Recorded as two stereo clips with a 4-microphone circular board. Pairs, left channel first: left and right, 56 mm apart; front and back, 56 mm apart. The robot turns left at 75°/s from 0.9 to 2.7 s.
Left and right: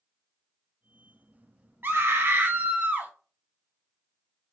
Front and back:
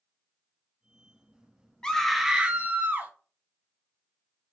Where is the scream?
70° right, 0.5 m; by 3.1 s 135° right, 0.5 m.